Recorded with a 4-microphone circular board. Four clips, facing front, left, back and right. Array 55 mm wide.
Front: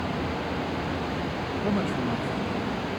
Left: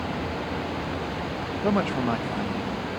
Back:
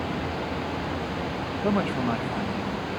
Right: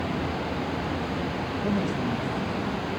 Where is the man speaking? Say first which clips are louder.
Left 5 dB, back 3 dB; 115° left, 0.7 m; by 2.9 s 125° left, 1.3 m.